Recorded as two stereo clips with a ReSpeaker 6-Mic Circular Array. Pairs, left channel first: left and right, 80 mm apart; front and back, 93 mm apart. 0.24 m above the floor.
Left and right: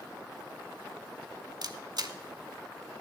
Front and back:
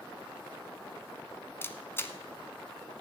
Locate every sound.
1.6 s a camera shutter: 65° right, 0.8 m